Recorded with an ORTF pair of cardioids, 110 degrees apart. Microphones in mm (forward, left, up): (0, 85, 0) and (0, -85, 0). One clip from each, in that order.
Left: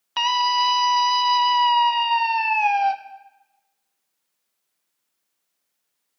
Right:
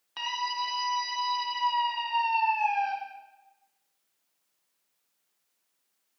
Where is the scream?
60° left, 0.9 m.